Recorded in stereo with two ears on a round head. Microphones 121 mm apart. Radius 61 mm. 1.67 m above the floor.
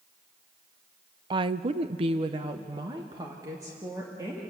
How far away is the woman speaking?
About 0.6 m.